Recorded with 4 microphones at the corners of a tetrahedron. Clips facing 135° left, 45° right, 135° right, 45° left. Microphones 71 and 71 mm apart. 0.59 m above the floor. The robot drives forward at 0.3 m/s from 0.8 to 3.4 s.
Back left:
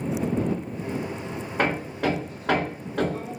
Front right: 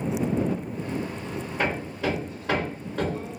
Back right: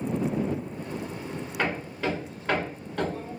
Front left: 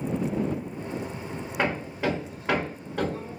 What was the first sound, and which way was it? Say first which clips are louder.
Hammering: back left 3 dB, front left 2 dB; 115° left.